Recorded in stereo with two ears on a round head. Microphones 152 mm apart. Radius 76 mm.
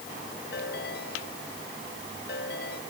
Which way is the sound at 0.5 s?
65° left (ahead or behind).